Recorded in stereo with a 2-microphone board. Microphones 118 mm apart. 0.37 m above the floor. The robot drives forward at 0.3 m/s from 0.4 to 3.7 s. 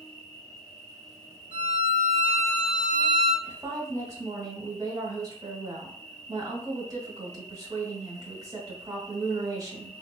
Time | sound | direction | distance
0.0 | an insect | 35° right (ahead or behind) | 1.2 m
1.5 | a violin | 75° right (ahead or behind) | 0.7 m
3.4 | a woman speaking | 30° right (ahead or behind) | 1.0 m